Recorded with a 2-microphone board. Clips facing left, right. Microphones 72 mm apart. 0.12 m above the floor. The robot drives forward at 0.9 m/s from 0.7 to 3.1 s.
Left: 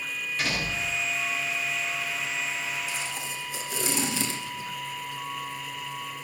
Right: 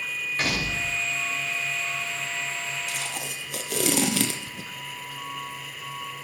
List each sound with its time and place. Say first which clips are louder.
0.4 s a door slam: right 2 dB; 40° right (ahead or behind), 8 m
2.9 s tape being pulled: even; 65° right (ahead or behind), 1.9 m